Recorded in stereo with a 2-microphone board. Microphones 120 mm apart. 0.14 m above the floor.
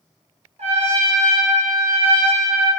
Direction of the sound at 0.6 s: 65° right (ahead or behind).